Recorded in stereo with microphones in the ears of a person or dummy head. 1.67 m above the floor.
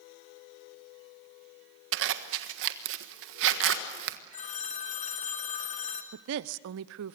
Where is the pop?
I don't hear a pop.